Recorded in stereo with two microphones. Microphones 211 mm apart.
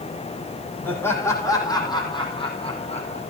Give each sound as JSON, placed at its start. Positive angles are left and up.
{"t": 0.8, "sound": "laughter", "side_deg": 10, "distance_m": 7.0}